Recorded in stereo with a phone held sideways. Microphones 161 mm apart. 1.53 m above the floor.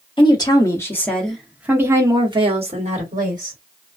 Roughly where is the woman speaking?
Left.